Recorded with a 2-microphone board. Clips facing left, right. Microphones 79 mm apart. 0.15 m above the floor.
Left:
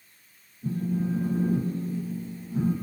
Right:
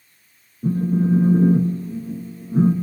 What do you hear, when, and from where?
0.6 s a phone buzzing: 50° right (ahead or behind), 0.7 m